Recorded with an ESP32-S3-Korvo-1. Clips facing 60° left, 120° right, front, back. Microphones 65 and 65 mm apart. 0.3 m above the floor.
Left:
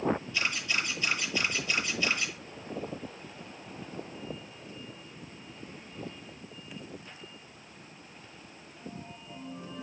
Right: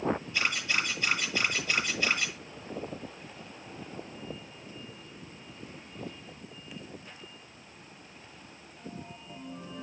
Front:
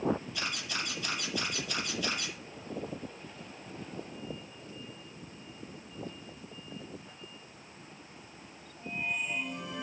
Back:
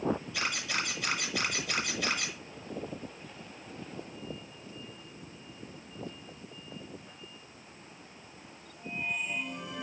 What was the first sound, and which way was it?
A camera shutter, 175° left.